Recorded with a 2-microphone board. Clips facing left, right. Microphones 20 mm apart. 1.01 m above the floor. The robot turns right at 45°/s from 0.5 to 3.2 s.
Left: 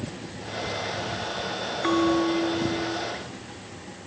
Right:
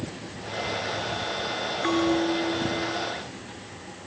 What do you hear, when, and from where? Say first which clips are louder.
1.8 s a bell: left 2 dB; 5° left, 3.5 m; by 3.0 s 55° left, 3.5 m